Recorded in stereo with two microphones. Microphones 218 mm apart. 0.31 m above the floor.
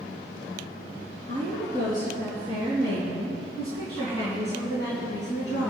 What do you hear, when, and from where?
1.3 s a woman speaking: 30° left (ahead or behind), 4.5 m; by 5.7 s 55° left (ahead or behind), 3.5 m